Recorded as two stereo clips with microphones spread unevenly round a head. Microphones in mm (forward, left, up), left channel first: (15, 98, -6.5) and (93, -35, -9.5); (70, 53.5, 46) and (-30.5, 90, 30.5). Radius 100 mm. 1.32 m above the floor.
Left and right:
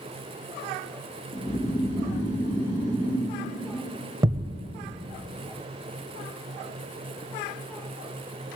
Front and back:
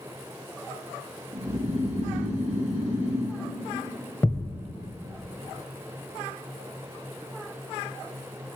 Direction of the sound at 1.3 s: 175° left.